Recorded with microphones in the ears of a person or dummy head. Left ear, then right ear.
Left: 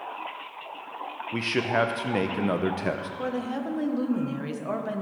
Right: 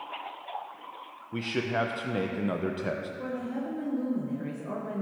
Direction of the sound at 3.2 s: 35° left (ahead or behind).